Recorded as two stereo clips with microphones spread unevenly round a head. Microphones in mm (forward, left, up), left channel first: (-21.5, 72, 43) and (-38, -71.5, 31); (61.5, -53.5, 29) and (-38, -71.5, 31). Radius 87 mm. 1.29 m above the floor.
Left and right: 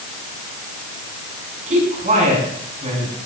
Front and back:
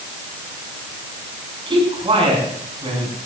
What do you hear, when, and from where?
1.7 s a man speaking: 135° right, 7.5 m; by 3.1 s 145° right, 7.5 m